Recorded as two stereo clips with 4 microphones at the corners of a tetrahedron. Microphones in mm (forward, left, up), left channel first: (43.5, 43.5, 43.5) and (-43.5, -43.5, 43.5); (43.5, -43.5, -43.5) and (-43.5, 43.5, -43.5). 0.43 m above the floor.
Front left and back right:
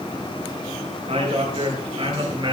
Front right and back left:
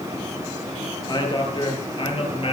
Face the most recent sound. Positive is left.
turn(degrees=-85)